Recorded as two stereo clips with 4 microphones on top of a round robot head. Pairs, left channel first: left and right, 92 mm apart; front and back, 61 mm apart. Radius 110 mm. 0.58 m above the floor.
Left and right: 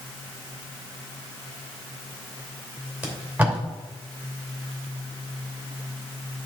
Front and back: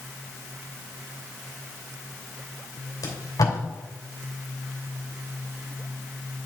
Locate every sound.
3.0 s tape being pulled: 15° right, 2.5 m